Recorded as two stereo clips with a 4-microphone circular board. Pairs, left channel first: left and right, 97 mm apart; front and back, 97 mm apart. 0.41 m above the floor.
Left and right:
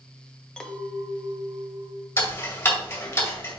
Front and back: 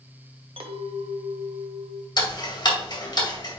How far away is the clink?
About 0.9 m.